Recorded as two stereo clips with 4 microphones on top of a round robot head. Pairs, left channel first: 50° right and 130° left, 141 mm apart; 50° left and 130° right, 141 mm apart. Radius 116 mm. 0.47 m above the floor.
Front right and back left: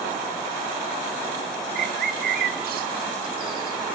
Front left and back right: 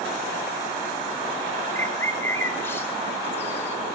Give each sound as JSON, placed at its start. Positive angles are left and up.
{"t": 1.8, "sound": "a bird", "azimuth_deg": 125, "distance_m": 1.5}